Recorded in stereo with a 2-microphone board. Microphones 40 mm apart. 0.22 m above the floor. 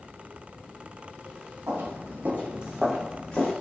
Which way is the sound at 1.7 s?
70° right (ahead or behind).